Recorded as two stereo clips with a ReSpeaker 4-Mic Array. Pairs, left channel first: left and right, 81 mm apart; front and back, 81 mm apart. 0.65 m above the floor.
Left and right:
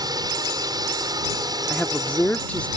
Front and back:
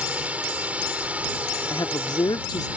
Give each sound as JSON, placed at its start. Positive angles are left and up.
{"t": 0.0, "sound": "a drone", "azimuth_deg": -110}
{"t": 1.7, "sound": "a woman speaking", "azimuth_deg": 20}